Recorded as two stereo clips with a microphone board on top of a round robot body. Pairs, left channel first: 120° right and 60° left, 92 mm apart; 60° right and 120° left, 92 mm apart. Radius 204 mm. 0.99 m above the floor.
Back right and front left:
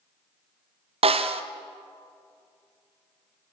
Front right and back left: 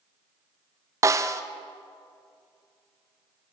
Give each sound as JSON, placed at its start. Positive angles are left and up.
{"t": 1.0, "sound": "a snare drum", "azimuth_deg": 65, "distance_m": 1.0}